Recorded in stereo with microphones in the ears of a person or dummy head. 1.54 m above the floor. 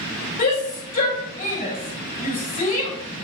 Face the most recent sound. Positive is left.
turn(degrees=40)  # may be behind; listen again after turning